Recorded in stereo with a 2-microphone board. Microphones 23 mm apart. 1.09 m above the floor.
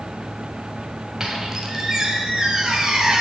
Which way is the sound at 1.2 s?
35° right (ahead or behind).